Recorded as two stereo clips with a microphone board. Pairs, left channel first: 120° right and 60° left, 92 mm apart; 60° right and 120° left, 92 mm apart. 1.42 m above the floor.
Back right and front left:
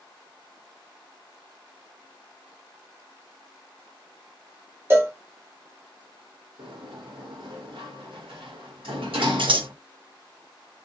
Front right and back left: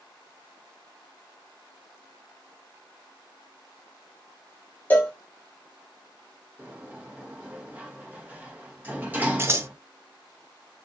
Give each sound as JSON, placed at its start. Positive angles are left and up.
{"t": 4.9, "sound": "a cowbell", "azimuth_deg": 5, "distance_m": 1.3}
{"t": 6.6, "sound": "a sliding door", "azimuth_deg": 50, "distance_m": 1.3}
{"t": 9.4, "sound": "scissors", "azimuth_deg": 60, "distance_m": 0.7}